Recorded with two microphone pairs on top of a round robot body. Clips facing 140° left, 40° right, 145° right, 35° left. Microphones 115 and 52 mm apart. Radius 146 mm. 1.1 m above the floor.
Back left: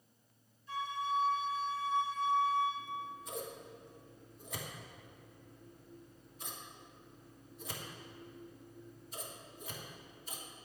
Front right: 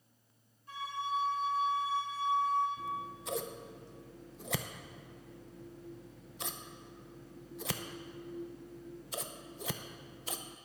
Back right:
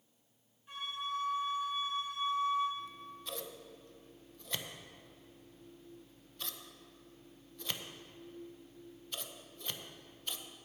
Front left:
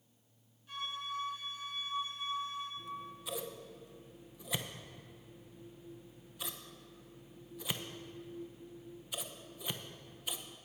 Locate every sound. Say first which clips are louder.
0.7 s a flute: back left 1 dB, back right 2 dB; 75° right, 4.5 m
2.8 s scissors: front right 3 dB, front left 1 dB; 45° right, 0.7 m